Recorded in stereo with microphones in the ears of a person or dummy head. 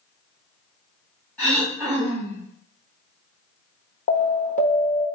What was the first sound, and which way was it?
Throat clearing, 10° left (ahead or behind).